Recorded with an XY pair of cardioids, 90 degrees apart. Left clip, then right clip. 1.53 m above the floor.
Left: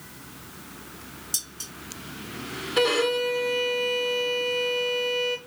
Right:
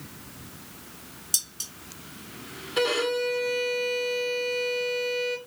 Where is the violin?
20° left, 1.3 m.